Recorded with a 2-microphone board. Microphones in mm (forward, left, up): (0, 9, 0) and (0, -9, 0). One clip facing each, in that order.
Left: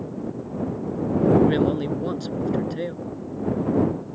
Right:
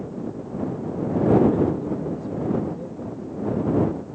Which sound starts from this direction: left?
A man speaking, at 1.4 s.